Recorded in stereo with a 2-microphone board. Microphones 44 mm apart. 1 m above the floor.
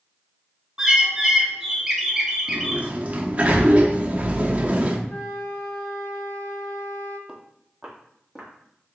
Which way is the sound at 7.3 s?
5° right (ahead or behind).